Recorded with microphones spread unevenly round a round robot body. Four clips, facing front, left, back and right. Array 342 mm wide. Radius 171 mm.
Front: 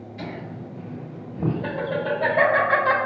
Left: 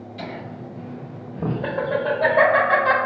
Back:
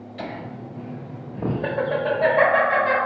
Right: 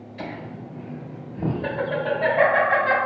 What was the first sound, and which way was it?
Laughter, 170° left.